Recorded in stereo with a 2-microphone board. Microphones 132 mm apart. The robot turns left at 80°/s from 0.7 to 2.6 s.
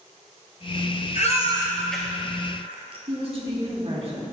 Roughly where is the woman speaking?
Right.